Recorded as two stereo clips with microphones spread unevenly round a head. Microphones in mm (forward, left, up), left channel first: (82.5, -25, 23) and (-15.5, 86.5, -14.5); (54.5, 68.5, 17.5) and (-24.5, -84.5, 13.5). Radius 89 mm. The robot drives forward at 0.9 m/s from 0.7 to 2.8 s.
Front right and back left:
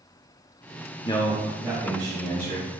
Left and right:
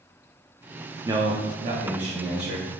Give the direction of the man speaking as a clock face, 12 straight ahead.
3 o'clock.